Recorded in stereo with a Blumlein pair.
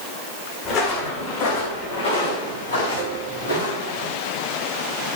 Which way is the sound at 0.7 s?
35° left.